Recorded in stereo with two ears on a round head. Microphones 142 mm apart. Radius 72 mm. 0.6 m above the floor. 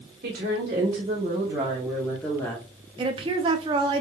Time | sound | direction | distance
0.2 | a woman speaking | 55° right (ahead or behind) | 1.7 m
3.0 | a woman speaking | 30° right (ahead or behind) | 0.6 m